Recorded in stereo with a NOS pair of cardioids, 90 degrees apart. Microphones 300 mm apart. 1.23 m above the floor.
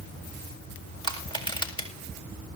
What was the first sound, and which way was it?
Crushing, 15° left.